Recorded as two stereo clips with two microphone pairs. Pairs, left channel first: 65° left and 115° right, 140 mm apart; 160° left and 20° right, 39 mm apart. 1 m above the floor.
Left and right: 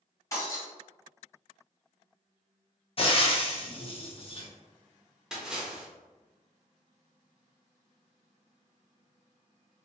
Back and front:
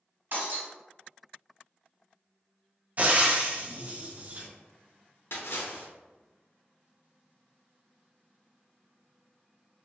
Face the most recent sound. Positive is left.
turn(degrees=160)